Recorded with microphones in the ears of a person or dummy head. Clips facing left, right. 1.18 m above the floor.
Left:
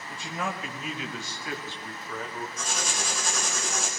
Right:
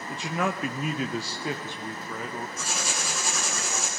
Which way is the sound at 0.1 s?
60° right (ahead or behind).